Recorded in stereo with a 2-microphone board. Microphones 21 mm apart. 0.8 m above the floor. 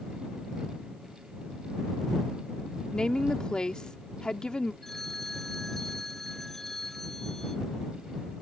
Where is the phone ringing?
20° left (ahead or behind).